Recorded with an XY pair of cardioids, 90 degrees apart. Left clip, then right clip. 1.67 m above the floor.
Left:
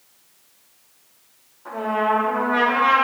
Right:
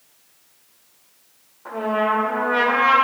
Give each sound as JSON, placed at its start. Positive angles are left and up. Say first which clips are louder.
{"t": 1.6, "sound": "a trumpet", "louder": "even", "azimuth_deg": -35, "distance_m": 2.5}